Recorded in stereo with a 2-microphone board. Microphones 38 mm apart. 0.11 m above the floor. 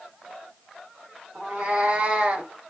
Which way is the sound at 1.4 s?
25° right (ahead or behind).